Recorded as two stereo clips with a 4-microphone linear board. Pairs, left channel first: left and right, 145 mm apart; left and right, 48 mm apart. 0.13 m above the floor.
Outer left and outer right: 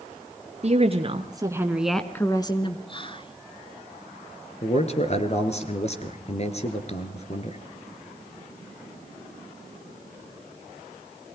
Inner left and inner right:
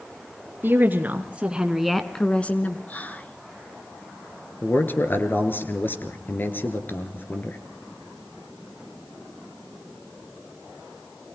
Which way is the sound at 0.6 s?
50° right (ahead or behind).